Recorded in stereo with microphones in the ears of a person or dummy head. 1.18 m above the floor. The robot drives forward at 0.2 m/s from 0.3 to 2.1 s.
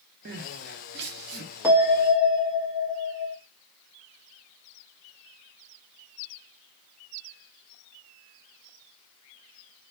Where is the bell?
10° right (ahead or behind), 1.0 m.